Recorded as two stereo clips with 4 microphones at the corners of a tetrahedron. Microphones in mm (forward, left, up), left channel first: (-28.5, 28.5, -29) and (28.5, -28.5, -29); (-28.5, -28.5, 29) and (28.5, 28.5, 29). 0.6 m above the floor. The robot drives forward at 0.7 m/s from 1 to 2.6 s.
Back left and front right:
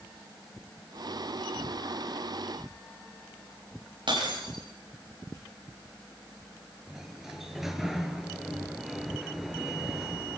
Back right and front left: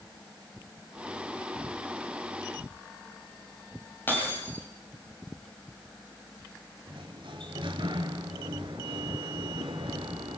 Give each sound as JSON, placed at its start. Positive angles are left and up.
{"t": 4.1, "sound": "breaking glass", "azimuth_deg": -70, "distance_m": 10.0}
{"t": 6.9, "sound": "a sliding door", "azimuth_deg": 40, "distance_m": 2.0}